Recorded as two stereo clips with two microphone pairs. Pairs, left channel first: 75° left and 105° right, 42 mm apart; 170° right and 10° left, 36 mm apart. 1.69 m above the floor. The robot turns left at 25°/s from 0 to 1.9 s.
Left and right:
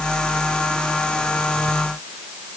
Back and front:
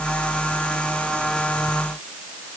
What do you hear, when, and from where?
Only background noise.